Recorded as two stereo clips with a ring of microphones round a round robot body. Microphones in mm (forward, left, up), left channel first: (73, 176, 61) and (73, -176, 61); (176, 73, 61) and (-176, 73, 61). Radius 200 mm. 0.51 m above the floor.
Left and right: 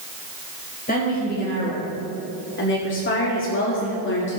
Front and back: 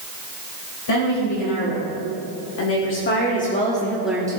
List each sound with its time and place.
0.9 s a woman speaking: 25° left, 3 m; by 4.4 s 115° left, 1.4 m